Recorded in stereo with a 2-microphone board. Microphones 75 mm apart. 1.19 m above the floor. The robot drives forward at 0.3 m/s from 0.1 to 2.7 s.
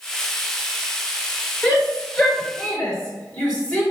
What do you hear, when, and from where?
1.6 s a shout: 15° left (ahead or behind), 5 m; by 3.8 s 10° left (ahead or behind), 5 m